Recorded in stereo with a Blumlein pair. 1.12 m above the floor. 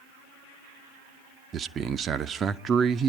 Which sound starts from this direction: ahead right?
A man speaking, at 1.5 s.